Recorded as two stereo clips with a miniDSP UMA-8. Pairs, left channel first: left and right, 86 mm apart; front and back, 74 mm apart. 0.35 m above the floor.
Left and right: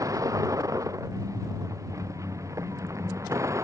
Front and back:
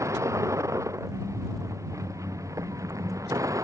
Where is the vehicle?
135° right; by 3.6 s 140° right.